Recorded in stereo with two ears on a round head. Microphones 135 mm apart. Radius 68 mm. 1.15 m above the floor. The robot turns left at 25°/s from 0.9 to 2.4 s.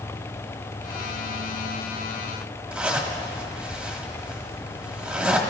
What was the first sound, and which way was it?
A zipper, 5° right (ahead or behind).